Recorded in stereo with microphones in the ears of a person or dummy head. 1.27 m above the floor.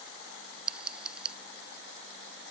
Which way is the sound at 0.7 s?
Centre (ahead or behind).